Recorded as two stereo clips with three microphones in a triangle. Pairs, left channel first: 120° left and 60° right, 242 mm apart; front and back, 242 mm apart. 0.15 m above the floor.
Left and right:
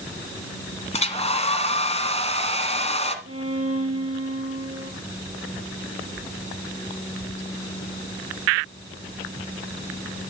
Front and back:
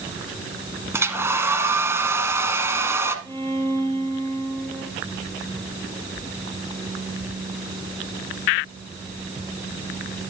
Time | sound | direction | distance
0.9 | a hair dryer | 115° left | 1.4 m
3.2 | a violin | 80° right | 2.5 m